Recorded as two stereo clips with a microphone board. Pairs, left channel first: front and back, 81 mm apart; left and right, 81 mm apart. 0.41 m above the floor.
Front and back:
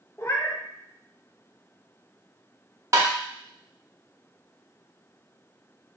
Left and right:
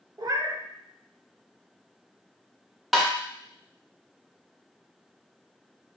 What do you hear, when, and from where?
0.2 s a cat meowing: 55° right, 0.5 m
2.9 s tapping: straight behind, 0.9 m